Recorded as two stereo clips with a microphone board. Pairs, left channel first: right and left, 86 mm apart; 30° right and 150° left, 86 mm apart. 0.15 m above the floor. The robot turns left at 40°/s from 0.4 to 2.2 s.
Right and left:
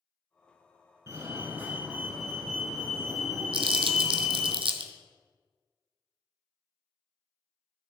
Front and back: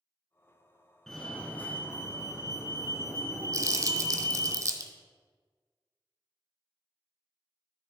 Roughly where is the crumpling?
Left.